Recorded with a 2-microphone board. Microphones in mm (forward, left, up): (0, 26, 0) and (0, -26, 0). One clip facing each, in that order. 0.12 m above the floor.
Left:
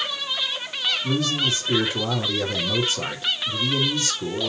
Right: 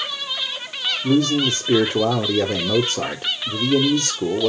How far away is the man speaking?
About 3 m.